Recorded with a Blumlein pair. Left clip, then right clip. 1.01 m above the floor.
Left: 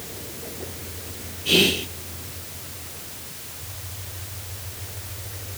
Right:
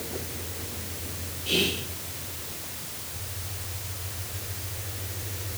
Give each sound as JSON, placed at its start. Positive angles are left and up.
{"t": 1.4, "sound": "whispering", "azimuth_deg": 20, "distance_m": 0.7}